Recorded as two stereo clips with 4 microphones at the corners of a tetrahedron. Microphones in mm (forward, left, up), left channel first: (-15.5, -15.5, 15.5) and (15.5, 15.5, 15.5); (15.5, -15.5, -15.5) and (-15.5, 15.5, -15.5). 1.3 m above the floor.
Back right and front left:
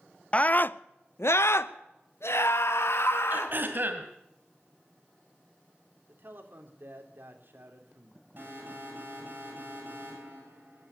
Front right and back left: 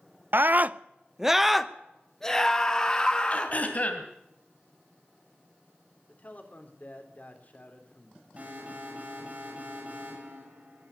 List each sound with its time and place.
0.3 s a scream: 165° left, 0.5 m; by 3.5 s 110° right, 1.8 m
3.3 s throat clearing: 5° left, 2.5 m
6.1 s a man speaking: 5° left, 3 m
8.4 s an alarm: 80° left, 9 m